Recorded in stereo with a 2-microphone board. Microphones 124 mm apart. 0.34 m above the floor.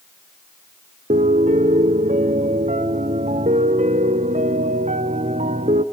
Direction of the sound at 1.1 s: 80° right.